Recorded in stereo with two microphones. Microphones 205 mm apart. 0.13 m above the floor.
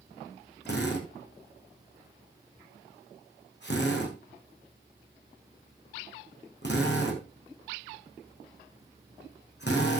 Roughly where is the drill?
Left.